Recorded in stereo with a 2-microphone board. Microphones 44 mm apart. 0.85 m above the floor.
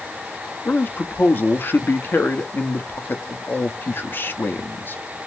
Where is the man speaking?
50° left (ahead or behind), 1.0 m.